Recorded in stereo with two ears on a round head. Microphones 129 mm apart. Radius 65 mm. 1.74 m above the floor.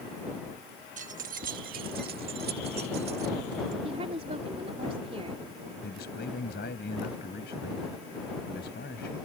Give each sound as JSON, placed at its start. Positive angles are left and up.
{"t": 1.0, "sound": "keys jangling", "side_deg": -55}
{"t": 3.8, "sound": "a woman speaking", "side_deg": -45}
{"t": 5.8, "sound": "a man speaking", "side_deg": 80}